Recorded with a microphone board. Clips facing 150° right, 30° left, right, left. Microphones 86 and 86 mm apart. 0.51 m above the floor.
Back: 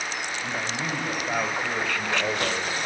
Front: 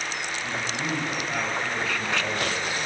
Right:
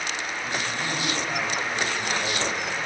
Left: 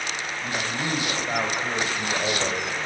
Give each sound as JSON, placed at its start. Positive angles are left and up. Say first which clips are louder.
{"t": 0.4, "sound": "a man speaking", "louder": "even, left 2 dB", "azimuth_deg": 150, "distance_m": 3.5}